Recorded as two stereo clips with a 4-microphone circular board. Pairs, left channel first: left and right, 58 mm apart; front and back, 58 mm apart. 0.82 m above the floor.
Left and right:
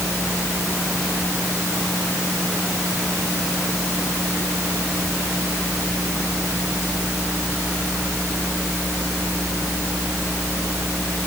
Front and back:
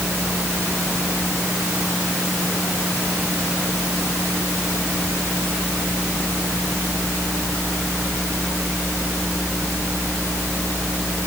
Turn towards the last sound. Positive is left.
No sound to turn to.